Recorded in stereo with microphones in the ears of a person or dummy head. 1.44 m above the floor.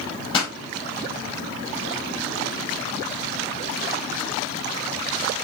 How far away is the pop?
About 2.5 m.